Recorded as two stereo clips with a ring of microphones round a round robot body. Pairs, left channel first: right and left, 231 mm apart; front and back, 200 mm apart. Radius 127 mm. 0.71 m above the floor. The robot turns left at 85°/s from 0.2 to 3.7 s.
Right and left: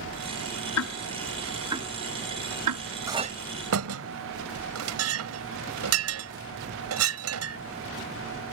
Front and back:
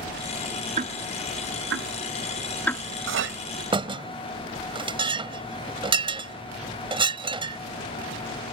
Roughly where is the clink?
Behind.